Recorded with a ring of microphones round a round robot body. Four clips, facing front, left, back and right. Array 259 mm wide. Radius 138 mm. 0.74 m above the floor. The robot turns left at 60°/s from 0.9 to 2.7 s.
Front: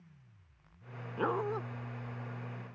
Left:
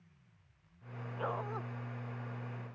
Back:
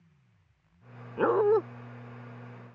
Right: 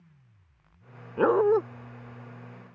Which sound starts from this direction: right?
A dog barking, at 1.2 s.